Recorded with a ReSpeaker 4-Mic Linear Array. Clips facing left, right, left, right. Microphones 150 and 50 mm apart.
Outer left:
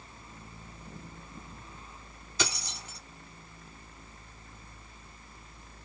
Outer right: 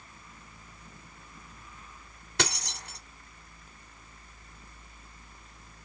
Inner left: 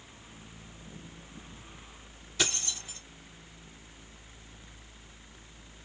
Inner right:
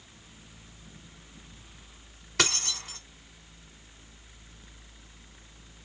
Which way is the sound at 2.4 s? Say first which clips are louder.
Outer right 2 dB, inner right 4 dB; 75° right (ahead or behind).